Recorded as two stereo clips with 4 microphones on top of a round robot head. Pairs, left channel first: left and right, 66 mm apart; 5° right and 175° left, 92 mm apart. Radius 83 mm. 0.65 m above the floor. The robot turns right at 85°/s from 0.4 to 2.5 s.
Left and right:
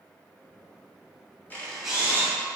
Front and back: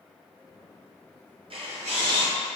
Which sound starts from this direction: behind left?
A camera shutter, at 1.5 s.